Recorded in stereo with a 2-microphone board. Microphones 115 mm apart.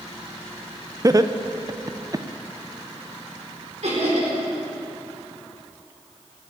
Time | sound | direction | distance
1.0 | laughter | 30° right (ahead or behind) | 0.6 m
3.8 | laughter | 70° right (ahead or behind) | 4.5 m